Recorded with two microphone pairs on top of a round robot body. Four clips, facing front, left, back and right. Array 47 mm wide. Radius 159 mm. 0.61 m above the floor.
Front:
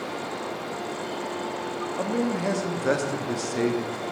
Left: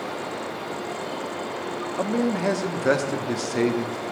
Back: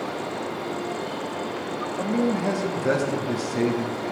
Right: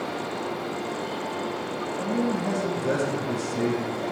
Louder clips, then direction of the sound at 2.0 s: Left 3 dB, back 3 dB; 80° left.